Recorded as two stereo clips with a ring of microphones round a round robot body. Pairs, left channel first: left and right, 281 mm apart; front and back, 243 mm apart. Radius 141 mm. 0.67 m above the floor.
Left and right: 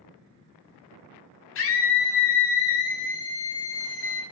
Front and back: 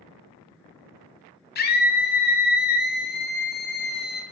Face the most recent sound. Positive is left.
turn(degrees=45)